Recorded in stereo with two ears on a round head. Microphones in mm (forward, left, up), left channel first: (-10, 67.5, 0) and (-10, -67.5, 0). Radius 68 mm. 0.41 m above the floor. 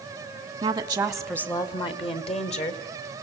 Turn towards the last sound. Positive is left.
turn(degrees=55)  # may be behind; listen again after turning